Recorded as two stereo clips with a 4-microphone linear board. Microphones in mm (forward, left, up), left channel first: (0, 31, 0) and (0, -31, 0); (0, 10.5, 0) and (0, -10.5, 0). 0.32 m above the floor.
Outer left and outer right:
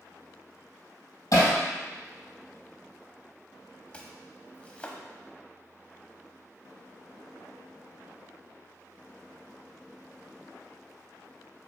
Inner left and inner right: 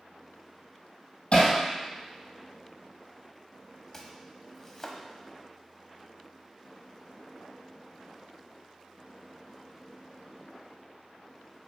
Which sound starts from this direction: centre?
Chopping, at 3.9 s.